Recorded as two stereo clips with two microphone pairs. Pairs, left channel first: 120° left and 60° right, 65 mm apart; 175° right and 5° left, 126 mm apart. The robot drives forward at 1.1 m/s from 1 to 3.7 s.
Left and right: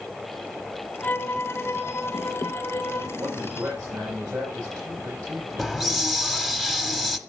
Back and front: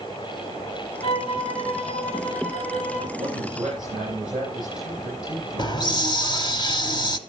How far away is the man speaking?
About 7.5 m.